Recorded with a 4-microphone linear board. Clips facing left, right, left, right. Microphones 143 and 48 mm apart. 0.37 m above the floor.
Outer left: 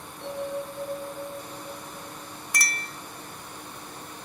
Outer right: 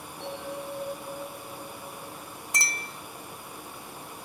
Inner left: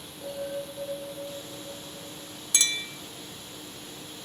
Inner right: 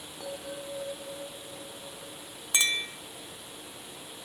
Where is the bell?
65° right (ahead or behind), 4 m.